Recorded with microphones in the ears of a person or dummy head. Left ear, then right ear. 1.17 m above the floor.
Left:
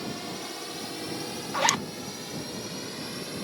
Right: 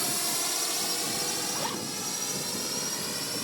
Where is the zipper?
75° left (ahead or behind).